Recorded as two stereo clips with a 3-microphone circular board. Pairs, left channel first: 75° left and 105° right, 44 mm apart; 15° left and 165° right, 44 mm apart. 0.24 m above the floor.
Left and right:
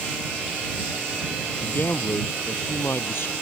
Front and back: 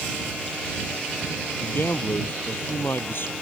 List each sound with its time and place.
1.6 s a man speaking: 45° left